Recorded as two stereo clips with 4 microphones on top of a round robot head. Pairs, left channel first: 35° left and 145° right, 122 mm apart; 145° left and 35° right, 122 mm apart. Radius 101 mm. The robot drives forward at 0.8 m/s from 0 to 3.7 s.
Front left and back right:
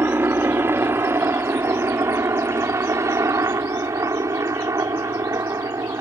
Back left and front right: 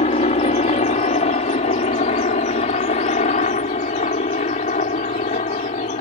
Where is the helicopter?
145° left; by 6.0 s 150° left.